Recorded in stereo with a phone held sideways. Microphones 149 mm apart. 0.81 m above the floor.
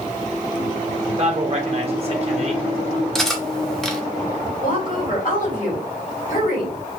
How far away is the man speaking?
About 1.5 m.